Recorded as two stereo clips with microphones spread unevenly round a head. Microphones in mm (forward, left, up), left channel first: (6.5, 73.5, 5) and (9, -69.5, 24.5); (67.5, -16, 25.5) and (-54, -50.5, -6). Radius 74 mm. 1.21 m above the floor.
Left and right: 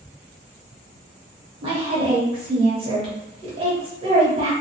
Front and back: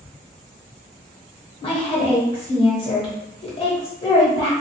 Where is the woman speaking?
35° right, 1.3 m.